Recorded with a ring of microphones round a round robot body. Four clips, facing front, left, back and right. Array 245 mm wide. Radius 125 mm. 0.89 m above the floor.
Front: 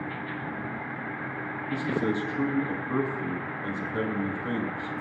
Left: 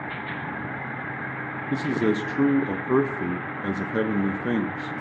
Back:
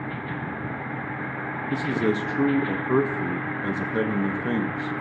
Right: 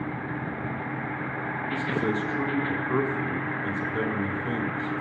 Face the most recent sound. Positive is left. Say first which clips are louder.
# left 5 dB, back 3 dB
turn(degrees=125)